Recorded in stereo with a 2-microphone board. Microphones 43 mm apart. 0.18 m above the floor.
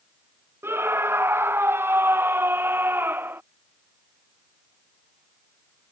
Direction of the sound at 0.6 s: 70° right (ahead or behind).